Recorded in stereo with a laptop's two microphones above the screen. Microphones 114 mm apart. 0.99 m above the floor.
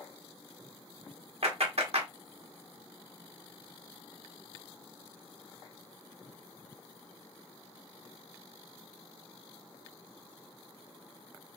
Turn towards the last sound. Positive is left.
turn(degrees=-65)  # may be behind; listen again after turning